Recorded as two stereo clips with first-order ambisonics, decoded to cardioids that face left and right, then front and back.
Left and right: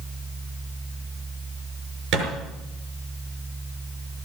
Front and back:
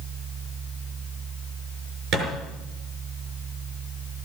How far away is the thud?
About 5.5 m.